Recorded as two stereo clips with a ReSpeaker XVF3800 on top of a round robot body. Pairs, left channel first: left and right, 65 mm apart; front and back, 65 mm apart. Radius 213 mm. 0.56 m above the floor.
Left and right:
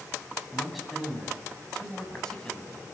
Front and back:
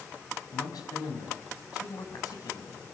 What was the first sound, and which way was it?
A man speaking, 5° right.